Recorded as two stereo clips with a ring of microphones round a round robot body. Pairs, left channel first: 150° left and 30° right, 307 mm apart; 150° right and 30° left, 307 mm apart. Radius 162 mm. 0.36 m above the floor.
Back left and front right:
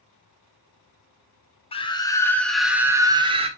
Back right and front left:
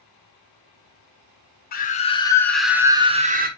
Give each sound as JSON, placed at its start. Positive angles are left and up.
{"t": 1.7, "sound": "a scream", "azimuth_deg": -160, "distance_m": 1.5}